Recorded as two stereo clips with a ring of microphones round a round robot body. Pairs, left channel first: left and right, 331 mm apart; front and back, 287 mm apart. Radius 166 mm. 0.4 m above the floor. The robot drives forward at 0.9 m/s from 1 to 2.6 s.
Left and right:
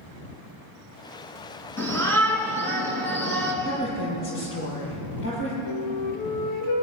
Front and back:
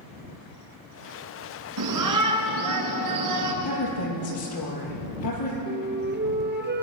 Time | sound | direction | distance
1.8 | a shout | 170° left | 6 m
3.6 | a woman speaking | 35° left | 9.5 m
5.7 | a flute | 125° left | 3 m